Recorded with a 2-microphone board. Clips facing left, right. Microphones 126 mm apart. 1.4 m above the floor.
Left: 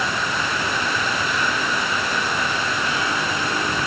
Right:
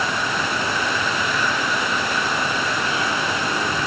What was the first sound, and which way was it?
Only background noise.